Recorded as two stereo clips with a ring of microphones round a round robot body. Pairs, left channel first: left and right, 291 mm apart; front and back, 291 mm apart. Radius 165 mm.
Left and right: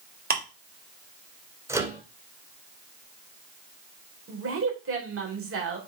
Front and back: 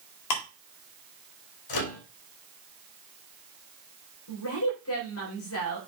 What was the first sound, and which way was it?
Ticking, 30° right.